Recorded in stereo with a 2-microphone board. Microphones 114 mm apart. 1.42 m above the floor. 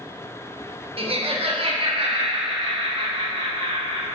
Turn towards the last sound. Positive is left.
turn(degrees=-50)  # may be behind; listen again after turning